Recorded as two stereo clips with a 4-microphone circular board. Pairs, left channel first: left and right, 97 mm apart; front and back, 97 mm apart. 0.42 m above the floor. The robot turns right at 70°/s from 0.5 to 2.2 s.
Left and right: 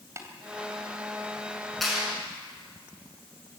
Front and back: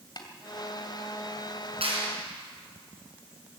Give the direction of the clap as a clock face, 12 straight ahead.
6 o'clock.